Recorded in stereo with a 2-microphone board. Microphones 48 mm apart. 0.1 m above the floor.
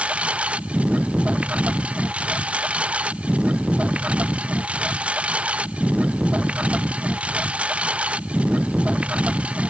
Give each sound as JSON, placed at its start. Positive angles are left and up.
{"t": 0.0, "sound": "a lawn mower", "side_deg": -25}